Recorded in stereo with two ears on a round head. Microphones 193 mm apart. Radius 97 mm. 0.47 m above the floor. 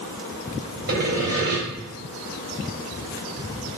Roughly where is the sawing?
Right.